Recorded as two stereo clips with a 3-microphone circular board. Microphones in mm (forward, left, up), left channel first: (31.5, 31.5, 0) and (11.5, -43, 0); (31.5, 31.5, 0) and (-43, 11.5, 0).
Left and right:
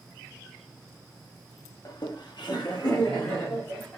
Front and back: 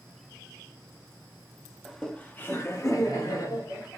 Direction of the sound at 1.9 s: 105° left.